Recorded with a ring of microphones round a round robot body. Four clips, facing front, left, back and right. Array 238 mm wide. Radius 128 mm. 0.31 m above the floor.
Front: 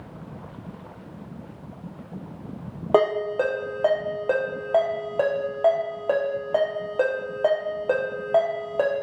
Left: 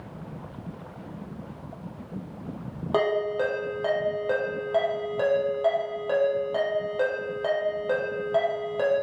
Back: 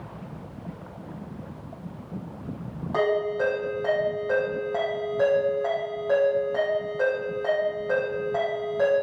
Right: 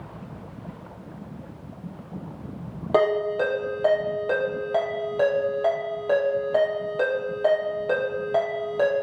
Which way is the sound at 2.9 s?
15° right.